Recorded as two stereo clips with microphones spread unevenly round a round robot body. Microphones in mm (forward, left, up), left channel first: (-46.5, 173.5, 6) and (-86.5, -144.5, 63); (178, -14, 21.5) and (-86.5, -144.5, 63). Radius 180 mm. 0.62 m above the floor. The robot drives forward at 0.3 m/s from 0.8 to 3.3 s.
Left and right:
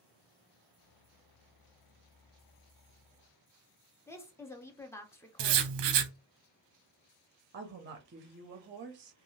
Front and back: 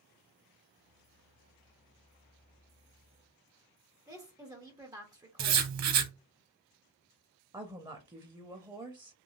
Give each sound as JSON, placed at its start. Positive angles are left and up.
{"t": 4.1, "sound": "a woman speaking", "azimuth_deg": 125, "distance_m": 0.6}
{"t": 5.4, "sound": "writing", "azimuth_deg": -120, "distance_m": 0.6}
{"t": 7.5, "sound": "a woman speaking", "azimuth_deg": -80, "distance_m": 0.5}